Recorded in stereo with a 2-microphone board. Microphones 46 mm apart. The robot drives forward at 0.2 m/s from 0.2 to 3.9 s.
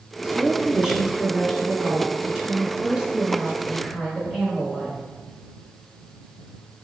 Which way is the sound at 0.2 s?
15° right (ahead or behind).